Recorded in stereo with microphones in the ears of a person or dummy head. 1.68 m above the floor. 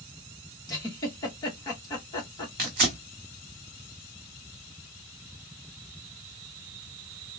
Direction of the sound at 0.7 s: 20° left (ahead or behind).